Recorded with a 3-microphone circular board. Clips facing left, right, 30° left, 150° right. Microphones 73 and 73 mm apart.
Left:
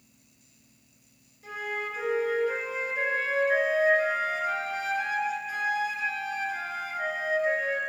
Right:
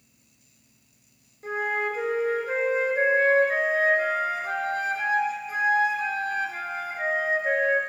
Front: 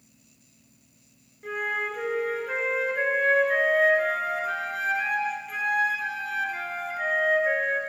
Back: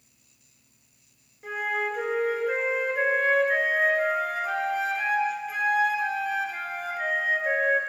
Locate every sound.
1.4 s a flute: 65° right, 0.7 m